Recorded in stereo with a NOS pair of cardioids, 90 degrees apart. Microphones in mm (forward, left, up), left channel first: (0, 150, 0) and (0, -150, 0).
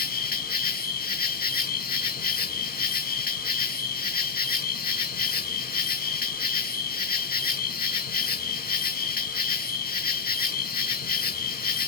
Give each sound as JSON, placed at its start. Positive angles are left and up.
{"t": 0.0, "sound": "an insect", "azimuth_deg": 30, "distance_m": 0.8}